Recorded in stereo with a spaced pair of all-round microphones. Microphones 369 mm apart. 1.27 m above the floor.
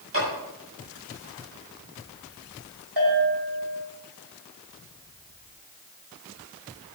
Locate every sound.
0.1 s a clap: 40° right (ahead or behind), 7.5 m
3.0 s a bell: 85° right, 6.5 m